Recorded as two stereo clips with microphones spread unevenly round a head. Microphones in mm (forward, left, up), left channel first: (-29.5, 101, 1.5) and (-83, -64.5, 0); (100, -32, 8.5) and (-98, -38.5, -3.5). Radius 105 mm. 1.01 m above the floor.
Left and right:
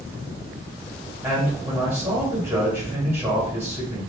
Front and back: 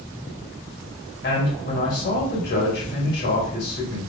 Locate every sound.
1.2 s a man speaking: 30° right, 2 m